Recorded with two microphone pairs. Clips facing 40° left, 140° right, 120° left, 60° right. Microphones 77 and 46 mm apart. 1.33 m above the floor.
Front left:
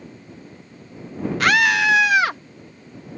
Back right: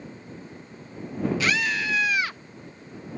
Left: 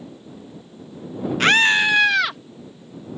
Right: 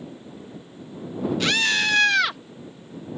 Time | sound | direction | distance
1.4 | a scream | 75° left | ?